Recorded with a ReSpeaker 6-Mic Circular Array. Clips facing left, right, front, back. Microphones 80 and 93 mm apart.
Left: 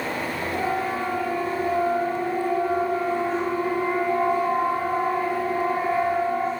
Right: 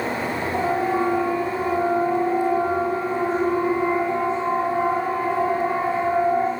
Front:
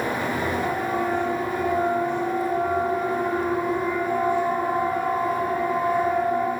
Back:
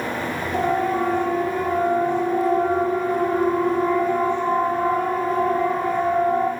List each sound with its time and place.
0.5 s a siren: 160° right, 9.5 m; by 6.5 s 165° right, 13.5 m